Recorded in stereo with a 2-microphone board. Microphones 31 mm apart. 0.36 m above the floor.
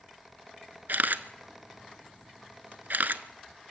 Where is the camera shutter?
80° right, 0.9 m.